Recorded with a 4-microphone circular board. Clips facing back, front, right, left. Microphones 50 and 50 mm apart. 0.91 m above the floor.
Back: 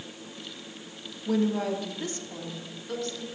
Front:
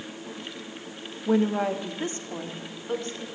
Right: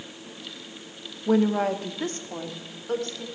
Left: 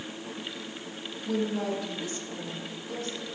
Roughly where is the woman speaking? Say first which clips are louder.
Front 3 dB, right 8 dB; ahead right.